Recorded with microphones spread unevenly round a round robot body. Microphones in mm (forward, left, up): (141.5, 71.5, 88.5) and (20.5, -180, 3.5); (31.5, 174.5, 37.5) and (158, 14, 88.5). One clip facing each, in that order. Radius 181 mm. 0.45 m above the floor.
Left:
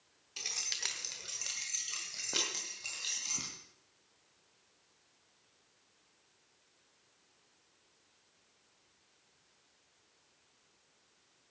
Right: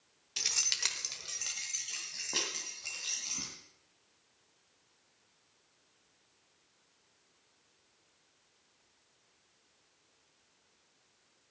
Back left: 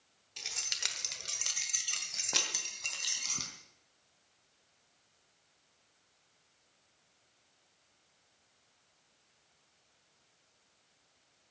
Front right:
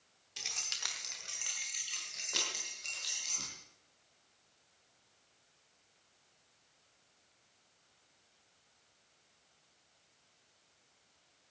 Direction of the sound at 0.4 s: 145° right.